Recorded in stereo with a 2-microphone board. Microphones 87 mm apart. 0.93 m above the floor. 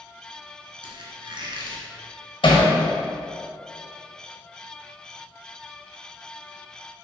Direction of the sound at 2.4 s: 75° left (ahead or behind).